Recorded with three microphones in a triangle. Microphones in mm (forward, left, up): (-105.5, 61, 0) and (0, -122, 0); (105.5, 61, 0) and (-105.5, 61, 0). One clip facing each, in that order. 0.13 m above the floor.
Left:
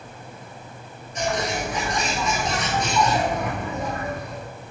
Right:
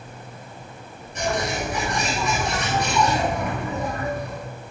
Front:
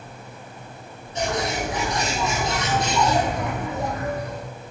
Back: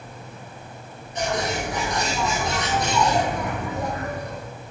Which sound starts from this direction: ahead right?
A bird, at 1.1 s.